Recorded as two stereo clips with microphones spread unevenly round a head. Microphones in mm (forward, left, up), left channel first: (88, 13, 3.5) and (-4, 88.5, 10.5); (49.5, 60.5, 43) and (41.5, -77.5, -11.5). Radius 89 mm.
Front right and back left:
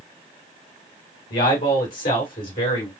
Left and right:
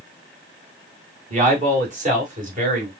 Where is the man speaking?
55° right, 2.5 m; by 2.9 s 65° right, 3.5 m.